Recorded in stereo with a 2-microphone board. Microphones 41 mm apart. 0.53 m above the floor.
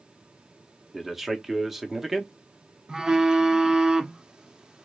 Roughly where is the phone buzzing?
Centre.